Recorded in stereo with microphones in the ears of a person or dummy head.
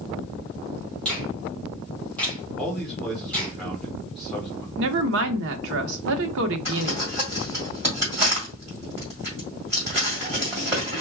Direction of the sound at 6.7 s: 15° right (ahead or behind).